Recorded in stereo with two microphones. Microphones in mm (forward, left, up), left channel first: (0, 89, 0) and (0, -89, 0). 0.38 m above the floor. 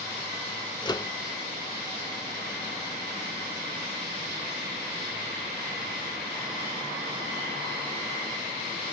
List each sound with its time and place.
0.8 s a microwave: 25° left (ahead or behind), 0.7 m